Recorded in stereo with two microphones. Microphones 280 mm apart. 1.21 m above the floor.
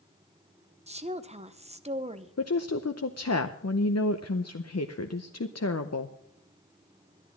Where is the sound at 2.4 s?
60° left (ahead or behind), 0.7 m.